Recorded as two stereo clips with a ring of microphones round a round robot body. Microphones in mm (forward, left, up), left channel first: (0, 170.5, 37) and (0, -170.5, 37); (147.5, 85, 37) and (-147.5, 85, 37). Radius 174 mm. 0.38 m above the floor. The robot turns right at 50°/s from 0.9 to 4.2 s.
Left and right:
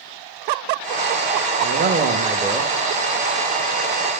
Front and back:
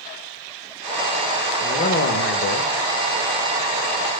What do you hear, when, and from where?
1.6 s a man speaking: 55° right, 1.0 m; by 2.7 s straight ahead, 1.0 m